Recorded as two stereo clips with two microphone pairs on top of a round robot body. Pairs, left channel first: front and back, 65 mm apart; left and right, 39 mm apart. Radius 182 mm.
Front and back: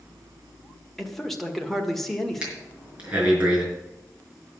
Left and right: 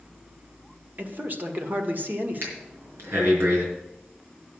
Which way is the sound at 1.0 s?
85° right.